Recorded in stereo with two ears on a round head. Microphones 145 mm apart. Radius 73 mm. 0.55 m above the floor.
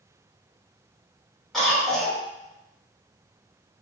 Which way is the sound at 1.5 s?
Centre (ahead or behind).